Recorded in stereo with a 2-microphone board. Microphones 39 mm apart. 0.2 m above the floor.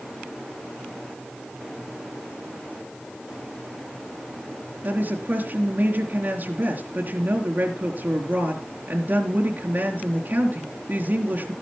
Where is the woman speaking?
55° right (ahead or behind), 3.5 m.